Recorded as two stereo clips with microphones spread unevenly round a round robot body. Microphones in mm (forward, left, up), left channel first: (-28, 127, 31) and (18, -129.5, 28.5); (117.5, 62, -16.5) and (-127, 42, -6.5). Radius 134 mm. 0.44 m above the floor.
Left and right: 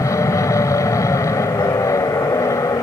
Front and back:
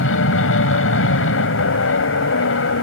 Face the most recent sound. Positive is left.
turn(degrees=25)